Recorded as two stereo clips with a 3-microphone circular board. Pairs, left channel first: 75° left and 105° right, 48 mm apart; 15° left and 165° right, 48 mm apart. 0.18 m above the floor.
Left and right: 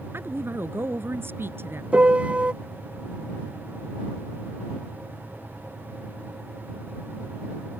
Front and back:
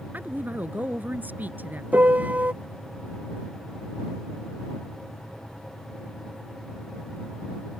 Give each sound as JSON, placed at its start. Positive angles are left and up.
{"t": 0.1, "sound": "a woman speaking", "azimuth_deg": -120}
{"t": 1.9, "sound": "a piano", "azimuth_deg": -145}